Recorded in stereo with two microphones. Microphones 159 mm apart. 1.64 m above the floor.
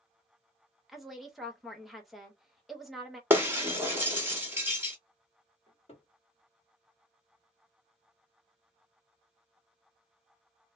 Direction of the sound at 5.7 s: 40° left (ahead or behind).